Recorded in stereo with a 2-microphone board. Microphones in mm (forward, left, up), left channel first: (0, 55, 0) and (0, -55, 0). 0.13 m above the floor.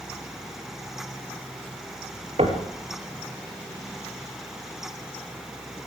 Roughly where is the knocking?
Right.